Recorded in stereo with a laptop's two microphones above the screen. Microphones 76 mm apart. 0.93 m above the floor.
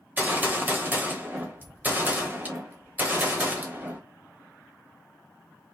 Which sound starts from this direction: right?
A gunshot, at 0.2 s.